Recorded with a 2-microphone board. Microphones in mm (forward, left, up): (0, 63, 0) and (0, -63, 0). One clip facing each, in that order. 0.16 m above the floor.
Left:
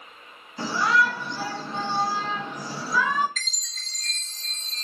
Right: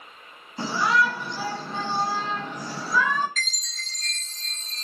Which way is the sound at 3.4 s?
Centre (ahead or behind).